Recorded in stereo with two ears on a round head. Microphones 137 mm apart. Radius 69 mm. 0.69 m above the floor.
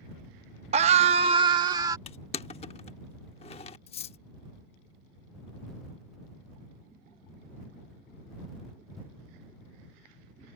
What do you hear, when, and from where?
0.7 s a scream: 45° right (ahead or behind); by 2.0 s 25° right (ahead or behind)
2.1 s crushing: 40° left (ahead or behind)
3.9 s cutlery clinking: 45° left (ahead or behind)